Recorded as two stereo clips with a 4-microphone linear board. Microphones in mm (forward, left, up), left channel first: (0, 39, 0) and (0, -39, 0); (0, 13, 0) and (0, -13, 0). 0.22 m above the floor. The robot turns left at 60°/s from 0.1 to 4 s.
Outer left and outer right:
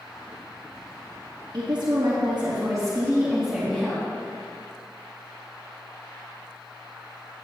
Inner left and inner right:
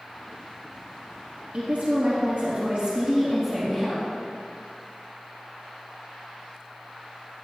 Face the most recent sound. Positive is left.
turn(degrees=155)